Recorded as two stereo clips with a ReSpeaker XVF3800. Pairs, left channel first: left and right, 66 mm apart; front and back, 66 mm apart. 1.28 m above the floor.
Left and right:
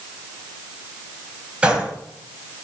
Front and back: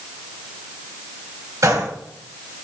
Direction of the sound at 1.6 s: 160° right.